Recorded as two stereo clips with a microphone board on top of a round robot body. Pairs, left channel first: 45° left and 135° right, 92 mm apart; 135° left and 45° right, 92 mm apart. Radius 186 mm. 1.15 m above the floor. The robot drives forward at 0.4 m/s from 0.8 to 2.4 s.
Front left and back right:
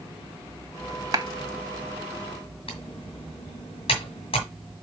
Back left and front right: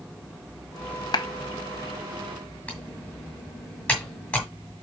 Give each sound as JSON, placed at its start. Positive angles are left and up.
{"t": 1.1, "sound": "a clap", "azimuth_deg": 175, "distance_m": 1.2}
{"t": 2.7, "sound": "typing on a keyboard", "azimuth_deg": 60, "distance_m": 0.9}